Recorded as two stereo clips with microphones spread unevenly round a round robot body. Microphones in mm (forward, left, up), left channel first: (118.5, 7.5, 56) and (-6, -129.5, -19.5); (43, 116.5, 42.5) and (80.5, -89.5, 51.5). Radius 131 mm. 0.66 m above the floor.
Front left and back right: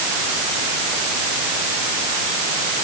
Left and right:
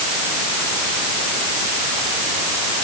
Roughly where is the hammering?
I don't hear hammering.